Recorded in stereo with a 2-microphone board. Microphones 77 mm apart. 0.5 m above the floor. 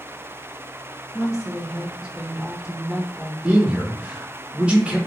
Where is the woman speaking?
5° right (ahead or behind), 1.6 m.